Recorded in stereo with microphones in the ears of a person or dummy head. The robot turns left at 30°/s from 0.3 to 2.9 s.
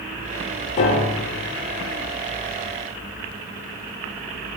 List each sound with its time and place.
0.8 s a piano: 35° left (ahead or behind), 1.2 m; by 1.5 s 45° left (ahead or behind), 1.2 m